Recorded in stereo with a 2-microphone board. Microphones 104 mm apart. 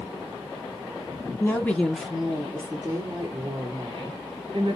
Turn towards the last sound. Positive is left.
turn(degrees=-45)  # may be behind; listen again after turning